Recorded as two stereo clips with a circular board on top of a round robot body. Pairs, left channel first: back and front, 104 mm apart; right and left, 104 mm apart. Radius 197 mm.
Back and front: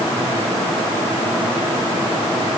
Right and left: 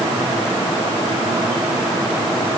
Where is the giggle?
I don't hear a giggle.